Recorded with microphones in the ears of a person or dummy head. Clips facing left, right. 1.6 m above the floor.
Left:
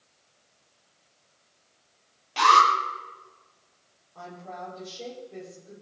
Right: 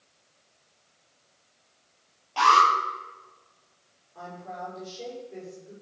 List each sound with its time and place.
2.4 s an alarm: 30° left (ahead or behind), 8.5 m
4.2 s a woman speaking: 5° right (ahead or behind), 8.5 m